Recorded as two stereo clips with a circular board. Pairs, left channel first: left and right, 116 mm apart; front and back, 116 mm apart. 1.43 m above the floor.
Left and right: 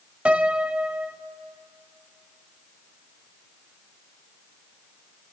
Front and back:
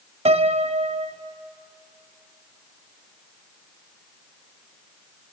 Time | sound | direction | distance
0.2 | a piano | 170° right | 0.6 m